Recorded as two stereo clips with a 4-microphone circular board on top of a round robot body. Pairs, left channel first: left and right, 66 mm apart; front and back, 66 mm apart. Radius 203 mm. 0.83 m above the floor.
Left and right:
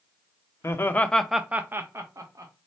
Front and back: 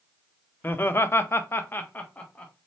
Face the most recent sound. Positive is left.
turn(degrees=-70)